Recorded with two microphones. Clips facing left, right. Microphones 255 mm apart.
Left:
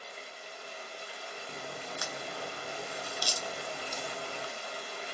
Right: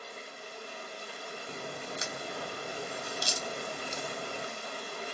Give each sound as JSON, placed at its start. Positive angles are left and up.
{"t": 0.0, "sound": "running water", "side_deg": -50, "distance_m": 1.2}
{"t": 1.5, "sound": "a crack", "side_deg": -25, "distance_m": 0.5}